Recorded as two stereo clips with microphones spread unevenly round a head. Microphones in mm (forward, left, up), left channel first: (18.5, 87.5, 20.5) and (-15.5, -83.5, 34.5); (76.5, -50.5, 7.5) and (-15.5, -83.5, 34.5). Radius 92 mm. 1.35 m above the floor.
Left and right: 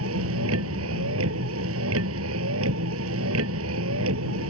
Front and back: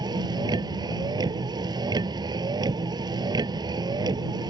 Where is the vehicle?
115° right.